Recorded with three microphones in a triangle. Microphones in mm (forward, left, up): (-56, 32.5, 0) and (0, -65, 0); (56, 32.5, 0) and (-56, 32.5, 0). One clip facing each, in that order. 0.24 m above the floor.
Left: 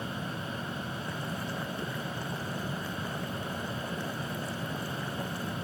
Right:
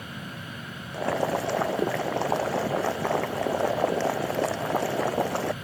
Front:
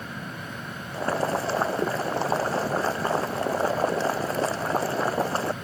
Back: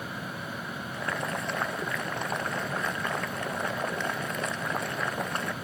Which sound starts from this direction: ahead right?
Boiling, at 0.9 s.